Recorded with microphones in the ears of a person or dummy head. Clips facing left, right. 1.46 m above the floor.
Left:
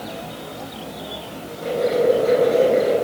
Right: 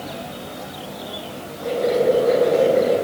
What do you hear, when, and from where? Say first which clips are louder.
1.6 s boiling: even; 35° left (ahead or behind), 8.5 m